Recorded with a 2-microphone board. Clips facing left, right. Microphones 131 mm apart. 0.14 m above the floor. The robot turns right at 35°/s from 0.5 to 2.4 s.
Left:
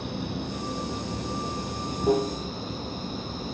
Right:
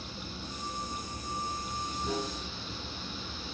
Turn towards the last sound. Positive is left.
turn(degrees=130)